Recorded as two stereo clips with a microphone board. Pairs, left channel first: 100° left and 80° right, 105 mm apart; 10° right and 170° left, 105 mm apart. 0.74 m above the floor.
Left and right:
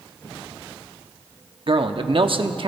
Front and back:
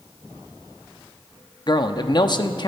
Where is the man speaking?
55° right, 0.9 m.